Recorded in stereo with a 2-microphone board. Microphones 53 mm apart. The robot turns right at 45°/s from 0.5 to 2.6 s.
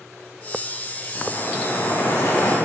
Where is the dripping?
55° left, 3.5 m; by 2.5 s 115° left, 3.5 m.